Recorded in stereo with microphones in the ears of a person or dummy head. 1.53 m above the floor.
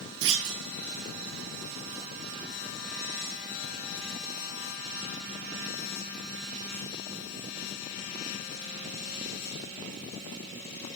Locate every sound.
0.2 s a clunk: 70° right (ahead or behind), 1.0 m